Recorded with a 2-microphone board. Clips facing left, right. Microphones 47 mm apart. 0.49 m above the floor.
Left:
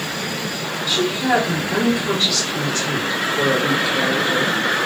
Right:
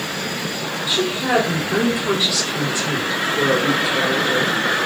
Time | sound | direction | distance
0.9 | a woman speaking | 10° right (ahead or behind) | 1.1 m